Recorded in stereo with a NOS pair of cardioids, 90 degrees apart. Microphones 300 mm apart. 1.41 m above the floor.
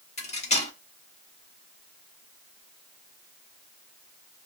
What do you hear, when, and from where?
0.2 s cutlery clinking: 25° left, 1.8 m